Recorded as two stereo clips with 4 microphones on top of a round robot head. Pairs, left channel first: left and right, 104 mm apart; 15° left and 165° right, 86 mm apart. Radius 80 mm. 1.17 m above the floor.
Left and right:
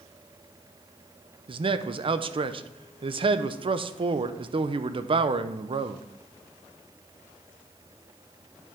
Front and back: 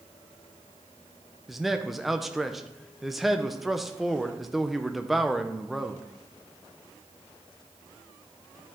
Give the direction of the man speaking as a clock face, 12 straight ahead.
3 o'clock.